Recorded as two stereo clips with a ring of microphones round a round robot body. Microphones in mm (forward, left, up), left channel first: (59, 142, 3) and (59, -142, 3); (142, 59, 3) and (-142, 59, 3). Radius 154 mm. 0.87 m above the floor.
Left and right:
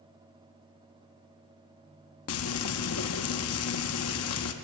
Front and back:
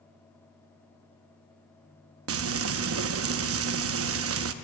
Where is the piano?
I don't hear a piano.